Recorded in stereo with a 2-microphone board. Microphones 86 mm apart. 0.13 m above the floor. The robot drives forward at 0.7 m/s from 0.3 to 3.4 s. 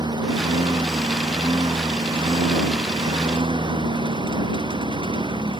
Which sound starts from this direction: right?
A lawn mower, at 0.0 s.